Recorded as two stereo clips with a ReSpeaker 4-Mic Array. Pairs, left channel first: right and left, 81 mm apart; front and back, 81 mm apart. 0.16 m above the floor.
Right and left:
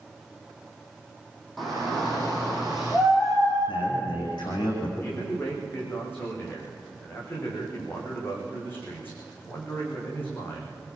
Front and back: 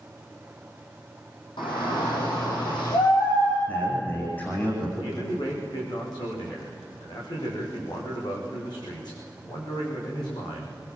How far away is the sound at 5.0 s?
About 9.5 m.